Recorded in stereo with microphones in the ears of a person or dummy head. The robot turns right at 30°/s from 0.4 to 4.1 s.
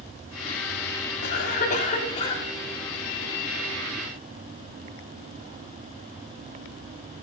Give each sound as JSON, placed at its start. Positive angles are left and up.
{"t": 1.2, "sound": "a cough", "azimuth_deg": 125, "distance_m": 3.5}